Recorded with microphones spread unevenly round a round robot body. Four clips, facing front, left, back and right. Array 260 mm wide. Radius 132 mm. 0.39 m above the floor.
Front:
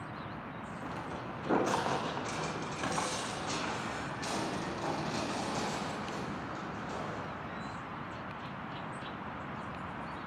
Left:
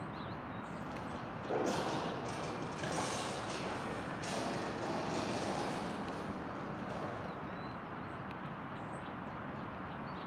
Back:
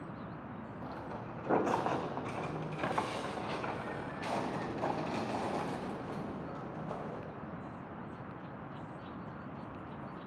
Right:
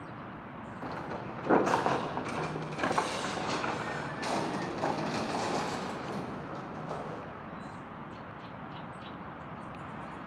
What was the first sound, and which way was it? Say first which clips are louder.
Footsteps: right 9 dB, front 3 dB; 70° right.